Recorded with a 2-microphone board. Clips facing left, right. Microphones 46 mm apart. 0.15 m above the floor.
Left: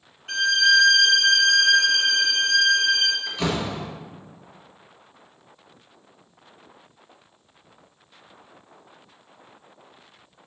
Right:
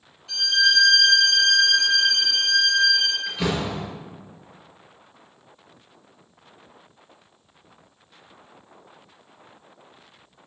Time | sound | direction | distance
0.3 | a violin | 45° left (ahead or behind) | 1.3 m
3.3 | a door slam | 5° right (ahead or behind) | 1.9 m